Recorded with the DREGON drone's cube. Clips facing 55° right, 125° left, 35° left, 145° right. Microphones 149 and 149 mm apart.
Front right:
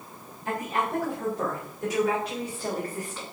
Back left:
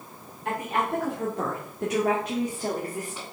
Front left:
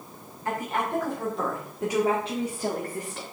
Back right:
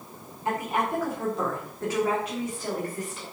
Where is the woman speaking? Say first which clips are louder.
Back left 1 dB, back right 1 dB; 145° left, 2.5 m; by 3.2 s 55° left, 1.9 m.